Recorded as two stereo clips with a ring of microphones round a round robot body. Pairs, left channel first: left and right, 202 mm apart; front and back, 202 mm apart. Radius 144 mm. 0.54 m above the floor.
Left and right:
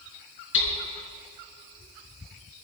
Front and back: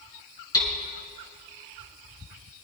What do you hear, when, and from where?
0.5 s hammering: 70° left, 4 m